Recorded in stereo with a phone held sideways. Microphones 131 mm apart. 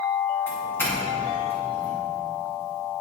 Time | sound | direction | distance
0.5 | a doorbell | 15° left (ahead or behind) | 2.5 m